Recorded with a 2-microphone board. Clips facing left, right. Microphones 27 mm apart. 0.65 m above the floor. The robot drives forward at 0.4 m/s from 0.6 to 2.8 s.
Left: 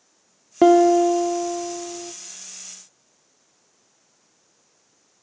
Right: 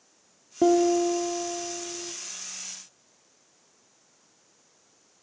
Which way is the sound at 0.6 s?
55° left (ahead or behind).